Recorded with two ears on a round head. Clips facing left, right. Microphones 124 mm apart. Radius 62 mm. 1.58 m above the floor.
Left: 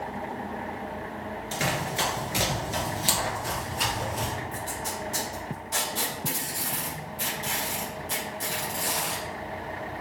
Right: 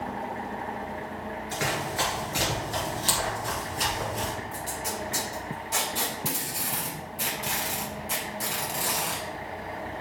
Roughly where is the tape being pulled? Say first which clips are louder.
Even; centre.